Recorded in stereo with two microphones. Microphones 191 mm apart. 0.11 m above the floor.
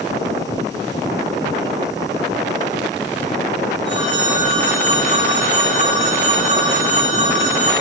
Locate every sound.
3.9 s a phone ringing: 80° left, 9 m